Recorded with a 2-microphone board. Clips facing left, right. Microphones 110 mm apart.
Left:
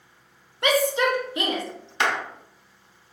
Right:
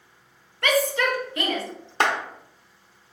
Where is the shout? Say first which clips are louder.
Left 1 dB; 20° left (ahead or behind), 0.6 m.